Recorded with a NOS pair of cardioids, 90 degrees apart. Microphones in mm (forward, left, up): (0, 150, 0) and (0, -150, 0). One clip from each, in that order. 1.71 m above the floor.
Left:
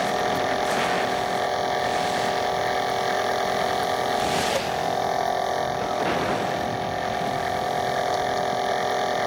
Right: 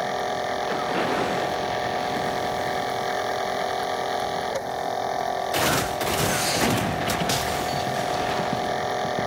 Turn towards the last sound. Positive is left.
turn(degrees=15)